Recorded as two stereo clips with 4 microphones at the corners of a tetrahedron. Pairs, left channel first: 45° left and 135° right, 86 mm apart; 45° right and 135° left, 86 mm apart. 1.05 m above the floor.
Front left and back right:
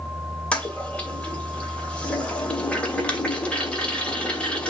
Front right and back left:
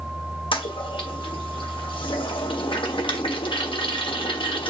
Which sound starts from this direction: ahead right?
A toilet flushing, at 0.5 s.